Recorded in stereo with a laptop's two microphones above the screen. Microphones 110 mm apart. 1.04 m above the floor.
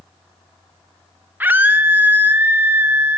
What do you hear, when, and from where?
1.4 s a scream: 15° right (ahead or behind), 0.6 m